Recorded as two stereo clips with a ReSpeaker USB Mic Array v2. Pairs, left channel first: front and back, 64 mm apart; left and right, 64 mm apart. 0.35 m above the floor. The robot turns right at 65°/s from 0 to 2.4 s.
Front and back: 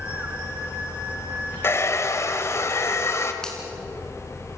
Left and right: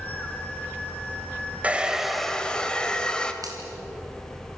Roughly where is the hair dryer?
Ahead right.